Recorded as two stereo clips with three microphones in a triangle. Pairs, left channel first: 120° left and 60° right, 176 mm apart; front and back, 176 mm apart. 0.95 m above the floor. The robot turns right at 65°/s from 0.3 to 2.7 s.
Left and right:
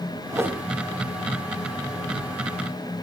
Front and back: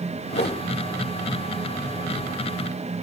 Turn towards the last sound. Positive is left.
turn(degrees=165)